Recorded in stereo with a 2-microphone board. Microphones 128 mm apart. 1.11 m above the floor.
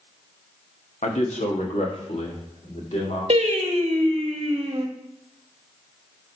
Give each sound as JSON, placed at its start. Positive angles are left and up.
{"t": 1.0, "sound": "a man speaking", "side_deg": 90, "distance_m": 1.0}
{"t": 3.3, "sound": "singing", "side_deg": -60, "distance_m": 1.0}